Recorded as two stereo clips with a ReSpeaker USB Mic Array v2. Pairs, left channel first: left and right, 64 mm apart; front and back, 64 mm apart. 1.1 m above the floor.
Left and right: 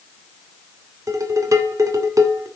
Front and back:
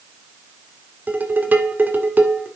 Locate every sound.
1.1 s dishes clattering: 115° right, 1.8 m